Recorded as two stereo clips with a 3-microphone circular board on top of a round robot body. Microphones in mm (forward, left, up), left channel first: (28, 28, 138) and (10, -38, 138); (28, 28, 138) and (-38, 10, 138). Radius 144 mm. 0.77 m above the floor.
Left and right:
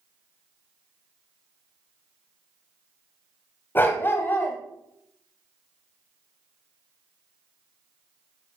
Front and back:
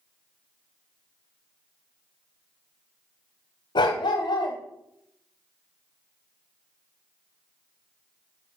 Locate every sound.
3.8 s a dog barking: 15° left, 1.1 m